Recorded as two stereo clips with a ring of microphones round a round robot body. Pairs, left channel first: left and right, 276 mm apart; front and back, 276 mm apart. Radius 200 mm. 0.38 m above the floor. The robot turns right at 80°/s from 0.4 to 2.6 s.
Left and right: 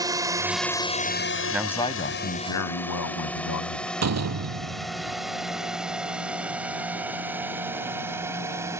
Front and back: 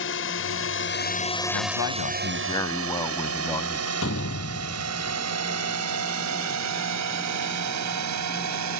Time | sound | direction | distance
0.0 | a drone | 20° right | ?
1.5 | a man speaking | 10° right | ?
4.0 | a door slam | 60° right | ?